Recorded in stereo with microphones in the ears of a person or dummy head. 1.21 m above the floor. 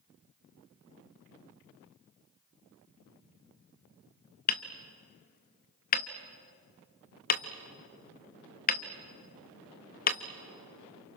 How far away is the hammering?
About 0.8 m.